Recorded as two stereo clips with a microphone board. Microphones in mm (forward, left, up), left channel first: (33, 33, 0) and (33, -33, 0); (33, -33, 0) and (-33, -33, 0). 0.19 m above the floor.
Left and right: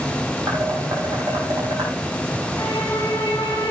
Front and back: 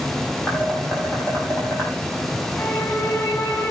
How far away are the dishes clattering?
About 5.5 m.